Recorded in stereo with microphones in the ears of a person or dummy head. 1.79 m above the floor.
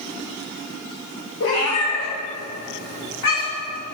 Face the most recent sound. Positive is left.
turn(degrees=75)  # may be behind; listen again after turning